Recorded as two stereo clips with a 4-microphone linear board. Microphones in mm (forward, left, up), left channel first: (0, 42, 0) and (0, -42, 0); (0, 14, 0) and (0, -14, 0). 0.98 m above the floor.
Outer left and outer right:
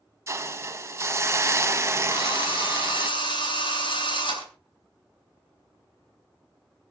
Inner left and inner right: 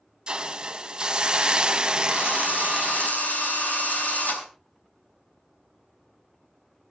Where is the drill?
70° left (ahead or behind), 6 m.